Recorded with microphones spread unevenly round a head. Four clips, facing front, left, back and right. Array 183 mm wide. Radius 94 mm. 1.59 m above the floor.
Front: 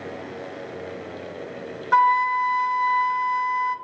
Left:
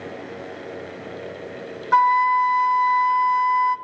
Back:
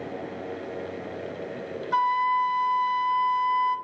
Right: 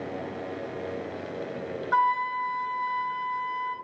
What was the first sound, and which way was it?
A flute, 40° left.